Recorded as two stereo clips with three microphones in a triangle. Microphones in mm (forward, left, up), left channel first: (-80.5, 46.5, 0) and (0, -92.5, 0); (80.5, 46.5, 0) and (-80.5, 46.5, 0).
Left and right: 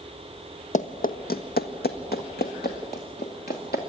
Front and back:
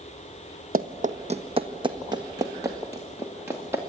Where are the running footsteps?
155° left, 1.0 m; by 3.8 s 105° left, 3 m.